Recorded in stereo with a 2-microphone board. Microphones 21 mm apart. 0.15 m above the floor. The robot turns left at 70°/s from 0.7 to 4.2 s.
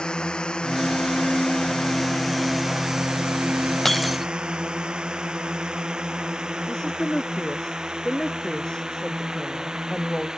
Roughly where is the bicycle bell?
I don't hear a bicycle bell.